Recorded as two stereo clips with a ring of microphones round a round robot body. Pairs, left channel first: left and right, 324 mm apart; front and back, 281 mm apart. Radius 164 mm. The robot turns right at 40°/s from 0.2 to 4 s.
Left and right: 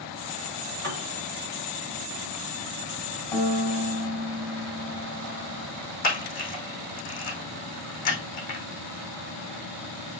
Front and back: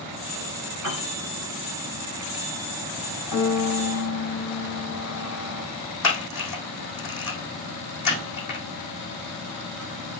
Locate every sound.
0.8 s a piano: 150° right, 2.5 m; by 1.1 s 140° right, 2.5 m
3.3 s a piano: 10° left, 2.5 m; by 5.7 s 35° left, 2.5 m
6.0 s a camera shutter: 25° left, 4.5 m